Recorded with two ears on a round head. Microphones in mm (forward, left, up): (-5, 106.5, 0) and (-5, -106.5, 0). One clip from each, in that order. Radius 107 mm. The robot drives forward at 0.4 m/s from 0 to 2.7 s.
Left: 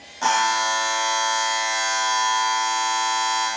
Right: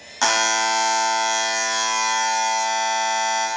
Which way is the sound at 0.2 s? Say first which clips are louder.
Right 1 dB; 50° right (ahead or behind).